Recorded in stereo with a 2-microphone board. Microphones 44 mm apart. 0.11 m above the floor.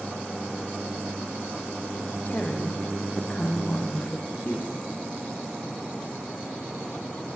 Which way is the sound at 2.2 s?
35° left (ahead or behind).